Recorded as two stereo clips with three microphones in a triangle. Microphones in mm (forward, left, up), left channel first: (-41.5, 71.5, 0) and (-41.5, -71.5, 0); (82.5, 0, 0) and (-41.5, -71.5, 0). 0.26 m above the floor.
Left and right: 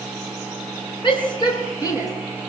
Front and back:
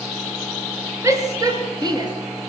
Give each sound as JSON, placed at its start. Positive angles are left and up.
{"t": 1.0, "sound": "a shout", "azimuth_deg": 140, "distance_m": 3.5}